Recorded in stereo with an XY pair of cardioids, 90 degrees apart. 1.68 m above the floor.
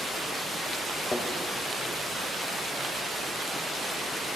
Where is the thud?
25° left, 3.5 m.